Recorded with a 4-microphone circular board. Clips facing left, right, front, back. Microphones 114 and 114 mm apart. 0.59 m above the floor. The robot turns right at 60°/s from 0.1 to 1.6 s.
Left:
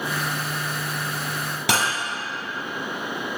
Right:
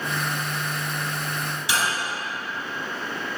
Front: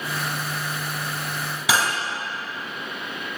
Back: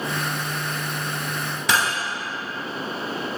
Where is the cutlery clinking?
85° left, 0.9 m.